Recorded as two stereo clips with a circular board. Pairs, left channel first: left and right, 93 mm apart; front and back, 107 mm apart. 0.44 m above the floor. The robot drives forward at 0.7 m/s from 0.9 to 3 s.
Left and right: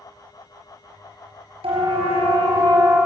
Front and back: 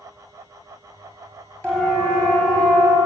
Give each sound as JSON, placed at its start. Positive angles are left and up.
{"t": 1.6, "sound": "a siren", "azimuth_deg": -80, "distance_m": 6.0}